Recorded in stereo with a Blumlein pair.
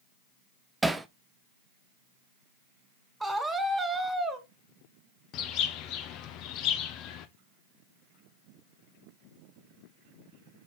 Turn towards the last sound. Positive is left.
turn(degrees=40)